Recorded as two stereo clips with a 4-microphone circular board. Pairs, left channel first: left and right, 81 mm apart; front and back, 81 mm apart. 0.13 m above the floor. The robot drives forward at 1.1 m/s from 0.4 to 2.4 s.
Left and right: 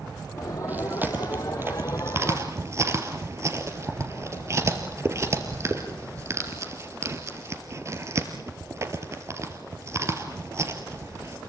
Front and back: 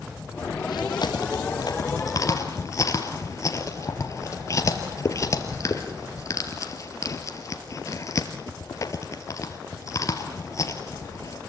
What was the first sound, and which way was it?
Chewing, 20° right.